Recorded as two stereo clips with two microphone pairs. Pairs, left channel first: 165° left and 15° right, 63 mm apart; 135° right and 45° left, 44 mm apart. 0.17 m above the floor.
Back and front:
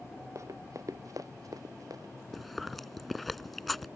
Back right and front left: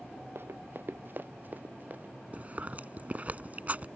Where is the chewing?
75° left.